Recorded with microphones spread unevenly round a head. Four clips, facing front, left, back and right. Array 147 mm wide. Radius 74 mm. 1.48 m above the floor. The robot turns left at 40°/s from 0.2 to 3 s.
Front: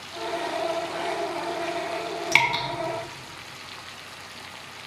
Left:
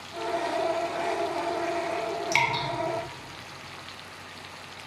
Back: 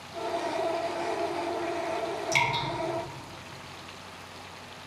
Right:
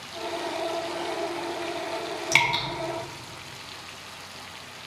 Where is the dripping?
25° right, 1.7 m; by 2.6 s 40° right, 1.7 m.